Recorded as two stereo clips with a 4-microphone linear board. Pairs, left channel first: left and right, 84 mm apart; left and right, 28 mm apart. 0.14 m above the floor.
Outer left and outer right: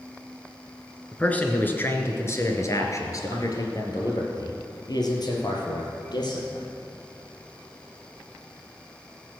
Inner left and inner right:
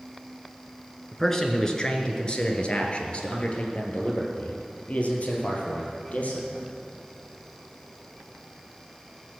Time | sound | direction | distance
1.1 | a man speaking | 15° left (ahead or behind) | 1.5 m